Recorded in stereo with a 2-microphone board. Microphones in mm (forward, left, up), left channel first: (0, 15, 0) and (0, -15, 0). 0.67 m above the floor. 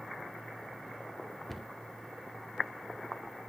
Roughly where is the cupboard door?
Centre.